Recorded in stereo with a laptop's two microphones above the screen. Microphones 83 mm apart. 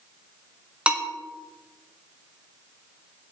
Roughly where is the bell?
Centre.